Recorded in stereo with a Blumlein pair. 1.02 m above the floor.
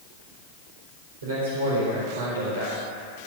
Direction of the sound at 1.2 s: 65° right.